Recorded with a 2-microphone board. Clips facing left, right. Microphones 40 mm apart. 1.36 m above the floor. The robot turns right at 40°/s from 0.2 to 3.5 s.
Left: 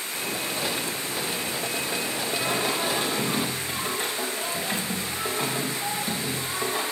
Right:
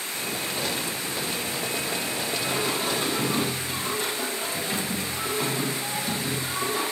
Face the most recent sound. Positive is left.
turn(degrees=145)